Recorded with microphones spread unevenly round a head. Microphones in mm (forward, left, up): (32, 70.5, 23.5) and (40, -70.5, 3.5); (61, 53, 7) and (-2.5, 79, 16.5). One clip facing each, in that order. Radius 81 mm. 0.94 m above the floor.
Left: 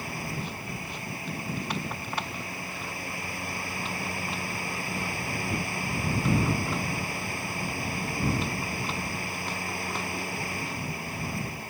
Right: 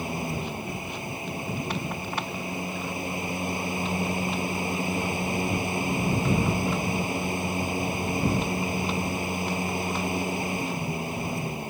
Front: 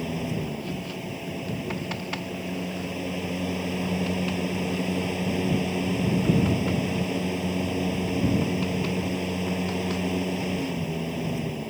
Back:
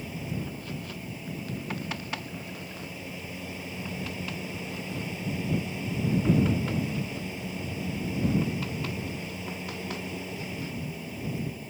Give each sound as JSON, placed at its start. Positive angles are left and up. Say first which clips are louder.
{"t": 0.0, "sound": "a fan", "louder": "right 5 dB, front 6 dB", "azimuth_deg": -15}